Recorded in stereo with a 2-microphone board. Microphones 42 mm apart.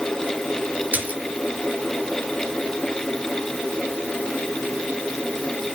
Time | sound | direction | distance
0.9 | a splash | 45° right (ahead or behind) | 3 m